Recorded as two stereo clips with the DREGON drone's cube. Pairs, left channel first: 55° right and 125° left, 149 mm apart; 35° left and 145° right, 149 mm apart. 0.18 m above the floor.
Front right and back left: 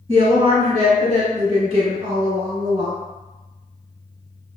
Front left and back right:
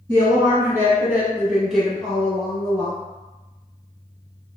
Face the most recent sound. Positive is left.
turn(degrees=85)